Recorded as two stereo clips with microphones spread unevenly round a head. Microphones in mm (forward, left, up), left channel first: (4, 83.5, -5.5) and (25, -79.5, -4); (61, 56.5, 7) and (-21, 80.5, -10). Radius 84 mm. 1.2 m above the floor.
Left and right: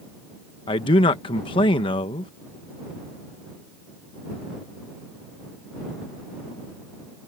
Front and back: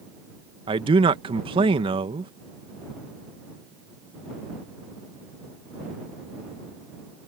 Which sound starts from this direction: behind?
A man speaking, at 0.7 s.